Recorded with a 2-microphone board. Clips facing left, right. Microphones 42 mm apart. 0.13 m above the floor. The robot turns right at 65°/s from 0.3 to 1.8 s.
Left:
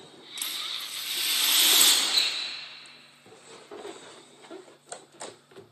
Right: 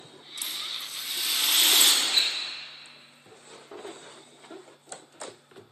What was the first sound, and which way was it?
A rattle, 100° left.